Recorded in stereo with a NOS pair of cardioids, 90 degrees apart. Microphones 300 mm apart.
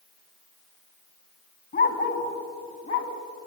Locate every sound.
1.7 s a dog barking: 35° left, 5 m; by 3.1 s 45° left, 4.5 m